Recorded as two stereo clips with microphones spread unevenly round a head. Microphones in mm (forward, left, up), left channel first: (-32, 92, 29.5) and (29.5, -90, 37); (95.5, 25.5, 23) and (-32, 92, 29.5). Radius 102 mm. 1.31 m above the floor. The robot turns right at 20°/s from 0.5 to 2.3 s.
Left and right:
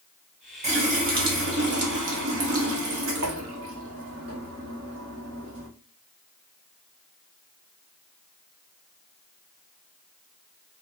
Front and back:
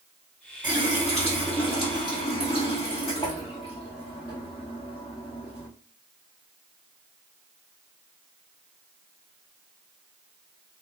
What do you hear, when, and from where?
0.6 s a running tap: 125° right, 0.9 m; by 5.7 s 95° right, 0.9 m